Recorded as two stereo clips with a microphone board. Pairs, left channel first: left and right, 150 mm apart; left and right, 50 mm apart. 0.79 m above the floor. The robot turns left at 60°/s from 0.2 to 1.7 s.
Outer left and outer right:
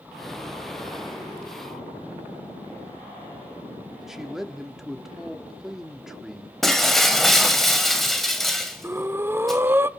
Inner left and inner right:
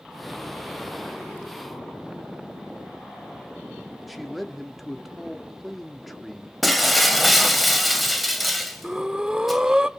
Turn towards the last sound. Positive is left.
turn(degrees=-15)  # may be behind; listen again after turning